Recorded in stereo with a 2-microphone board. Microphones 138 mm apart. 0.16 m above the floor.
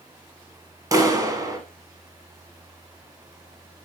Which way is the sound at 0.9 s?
25° right (ahead or behind).